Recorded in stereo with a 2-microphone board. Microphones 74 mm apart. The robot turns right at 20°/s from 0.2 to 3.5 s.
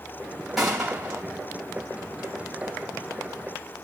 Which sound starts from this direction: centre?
A gunshot, at 0.6 s.